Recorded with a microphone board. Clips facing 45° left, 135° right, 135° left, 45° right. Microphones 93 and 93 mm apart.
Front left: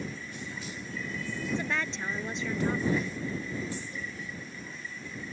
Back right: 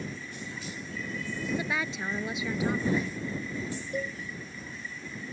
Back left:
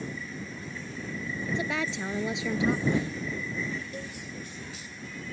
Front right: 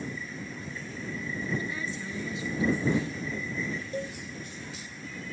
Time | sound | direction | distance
1.5 | a woman speaking | 140° left | ?
3.9 | a cowbell | 105° right | ?